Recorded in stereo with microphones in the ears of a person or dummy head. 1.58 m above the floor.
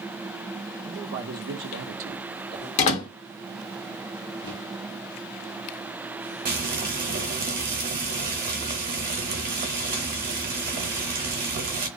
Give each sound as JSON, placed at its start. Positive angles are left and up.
{"t": 0.8, "sound": "a man speaking", "side_deg": -35, "distance_m": 0.8}
{"t": 2.8, "sound": "a door slam", "side_deg": 40, "distance_m": 1.3}
{"t": 4.4, "sound": "a microwave", "side_deg": 75, "distance_m": 1.2}
{"t": 6.5, "sound": "frying", "side_deg": -45, "distance_m": 0.8}